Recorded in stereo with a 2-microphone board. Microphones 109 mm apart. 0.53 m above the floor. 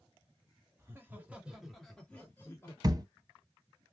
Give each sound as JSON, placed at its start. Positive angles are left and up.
{"t": 0.8, "sound": "laughter", "side_deg": -25, "distance_m": 1.4}
{"t": 2.8, "sound": "a thud", "side_deg": -40, "distance_m": 0.8}